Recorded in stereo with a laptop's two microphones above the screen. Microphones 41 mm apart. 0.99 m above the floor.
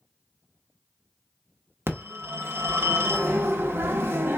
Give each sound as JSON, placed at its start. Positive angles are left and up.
{"t": 1.9, "sound": "a phone ringing", "side_deg": -70, "distance_m": 0.7}